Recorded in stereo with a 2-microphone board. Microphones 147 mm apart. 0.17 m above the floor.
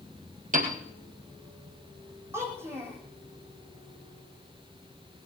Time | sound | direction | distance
0.5 | a piano | 65° right (ahead or behind) | 3 m
2.3 | a child speaking | 15° right (ahead or behind) | 5.5 m